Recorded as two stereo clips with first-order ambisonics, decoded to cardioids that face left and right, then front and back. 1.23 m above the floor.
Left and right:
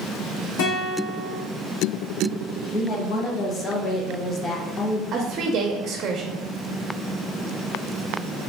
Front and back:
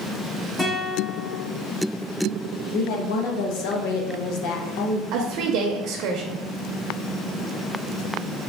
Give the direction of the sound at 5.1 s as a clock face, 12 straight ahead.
5 o'clock.